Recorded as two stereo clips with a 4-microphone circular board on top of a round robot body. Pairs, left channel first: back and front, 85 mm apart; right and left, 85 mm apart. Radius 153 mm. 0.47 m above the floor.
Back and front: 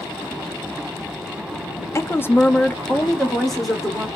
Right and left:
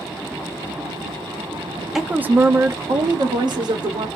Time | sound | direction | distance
1.9 | a woman speaking | 170° left | 1.0 m